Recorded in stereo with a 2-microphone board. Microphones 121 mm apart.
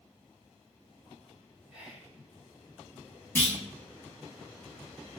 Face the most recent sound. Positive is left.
turn(degrees=20)  # may be behind; listen again after turning